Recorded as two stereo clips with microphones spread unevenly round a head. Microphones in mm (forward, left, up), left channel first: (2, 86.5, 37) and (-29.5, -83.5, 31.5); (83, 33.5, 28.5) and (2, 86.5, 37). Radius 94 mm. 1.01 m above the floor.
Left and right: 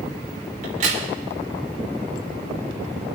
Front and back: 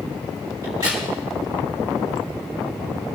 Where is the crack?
145° right, 3.5 m.